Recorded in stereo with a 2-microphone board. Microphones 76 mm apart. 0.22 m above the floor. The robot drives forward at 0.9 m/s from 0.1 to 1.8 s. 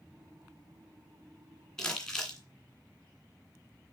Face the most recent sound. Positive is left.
turn(degrees=10)  # may be behind; listen again after turning